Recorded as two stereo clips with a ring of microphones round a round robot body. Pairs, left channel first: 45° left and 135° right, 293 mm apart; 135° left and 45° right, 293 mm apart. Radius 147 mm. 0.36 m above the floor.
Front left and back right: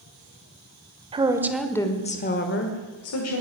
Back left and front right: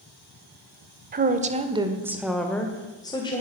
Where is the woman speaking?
75° right, 1.5 m; by 3.4 s 65° left, 2.5 m.